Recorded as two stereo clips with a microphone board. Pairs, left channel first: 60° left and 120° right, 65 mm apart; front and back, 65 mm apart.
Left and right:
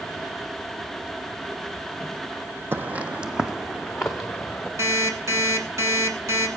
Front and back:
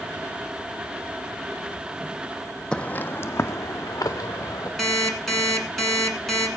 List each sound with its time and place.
2.7 s footsteps: 75° right, 0.7 m; by 4.7 s 20° right, 1.7 m
4.8 s an alarm clock: 85° right, 1.7 m